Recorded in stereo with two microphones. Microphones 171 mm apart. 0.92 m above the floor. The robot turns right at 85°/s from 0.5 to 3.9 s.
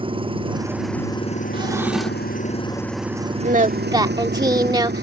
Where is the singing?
65° right; by 5.0 s 25° right.